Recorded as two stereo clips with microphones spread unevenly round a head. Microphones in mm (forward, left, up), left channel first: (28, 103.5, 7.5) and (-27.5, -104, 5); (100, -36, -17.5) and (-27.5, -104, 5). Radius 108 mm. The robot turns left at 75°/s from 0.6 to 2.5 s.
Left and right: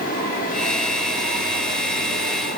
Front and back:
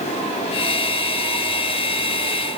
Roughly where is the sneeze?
No sneeze in this recording.